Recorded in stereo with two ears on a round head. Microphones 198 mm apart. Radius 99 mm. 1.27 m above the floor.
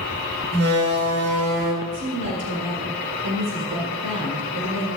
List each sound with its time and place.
0.5 s a door slam: 50° right (ahead or behind), 3.5 m
1.8 s a woman speaking: 80° right, 1.9 m